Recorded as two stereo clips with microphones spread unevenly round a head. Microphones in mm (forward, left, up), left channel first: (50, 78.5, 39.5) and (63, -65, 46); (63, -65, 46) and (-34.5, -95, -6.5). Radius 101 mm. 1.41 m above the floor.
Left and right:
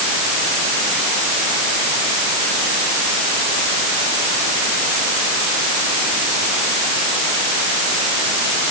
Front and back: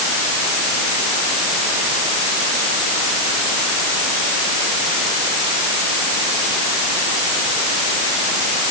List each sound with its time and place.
Only background noise.